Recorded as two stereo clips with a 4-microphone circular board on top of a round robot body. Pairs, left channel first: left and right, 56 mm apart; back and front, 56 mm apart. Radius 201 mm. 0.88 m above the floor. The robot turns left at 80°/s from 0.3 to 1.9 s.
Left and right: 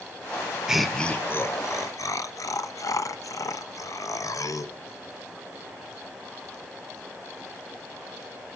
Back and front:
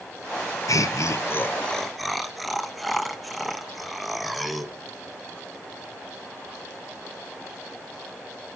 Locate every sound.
0.7 s laughter: 170° right, 1.2 m; by 4.7 s 90° left, 1.2 m